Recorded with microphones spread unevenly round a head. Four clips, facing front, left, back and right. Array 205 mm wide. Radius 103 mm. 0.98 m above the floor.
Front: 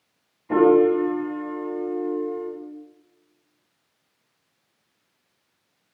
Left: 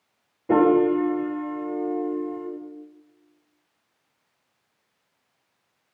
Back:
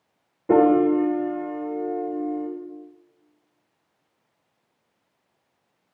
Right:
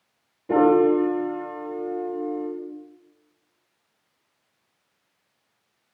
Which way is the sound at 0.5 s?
165° left.